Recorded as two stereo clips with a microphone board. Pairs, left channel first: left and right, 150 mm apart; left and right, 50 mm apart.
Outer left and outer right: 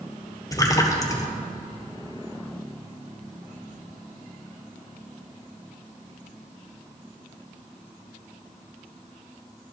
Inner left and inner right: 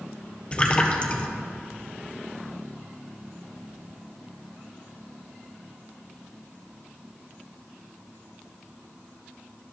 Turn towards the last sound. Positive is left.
turn(degrees=25)  # may be behind; listen again after turning